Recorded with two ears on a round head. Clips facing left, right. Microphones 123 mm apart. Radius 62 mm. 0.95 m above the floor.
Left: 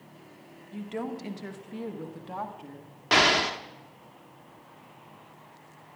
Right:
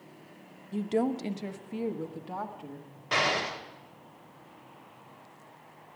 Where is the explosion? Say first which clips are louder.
Left 5 dB; 75° left (ahead or behind), 1.4 m.